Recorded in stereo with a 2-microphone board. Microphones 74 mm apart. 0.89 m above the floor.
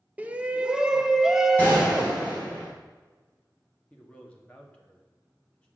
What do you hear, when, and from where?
0.2 s a shout: 20° right (ahead or behind), 0.7 m; by 2.2 s centre (ahead or behind), 1.5 m
1.6 s a gunshot: 25° left (ahead or behind), 4 m
3.9 s a man speaking: 15° left (ahead or behind), 1.9 m